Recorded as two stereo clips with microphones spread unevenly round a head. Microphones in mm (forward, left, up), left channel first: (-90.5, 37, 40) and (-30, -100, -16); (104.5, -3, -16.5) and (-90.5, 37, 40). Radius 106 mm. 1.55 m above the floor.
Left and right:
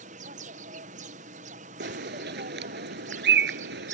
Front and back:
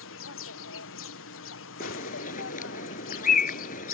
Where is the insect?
25° right.